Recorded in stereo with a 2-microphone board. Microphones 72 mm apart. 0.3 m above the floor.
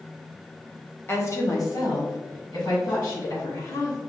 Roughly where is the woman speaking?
Left.